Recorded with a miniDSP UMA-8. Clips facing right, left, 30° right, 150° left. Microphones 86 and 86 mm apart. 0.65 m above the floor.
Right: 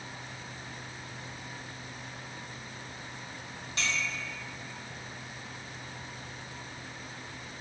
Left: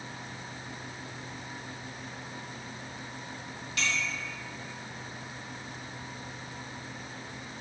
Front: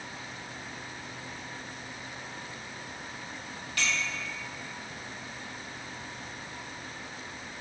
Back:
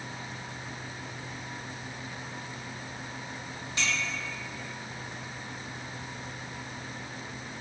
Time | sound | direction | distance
3.8 | a clink | 145° right | 1.1 m